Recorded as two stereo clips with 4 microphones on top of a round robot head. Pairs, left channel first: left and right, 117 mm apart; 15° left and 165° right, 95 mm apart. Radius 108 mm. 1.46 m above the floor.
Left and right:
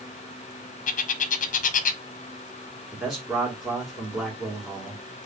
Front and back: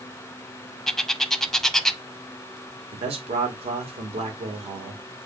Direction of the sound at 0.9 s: 105° left.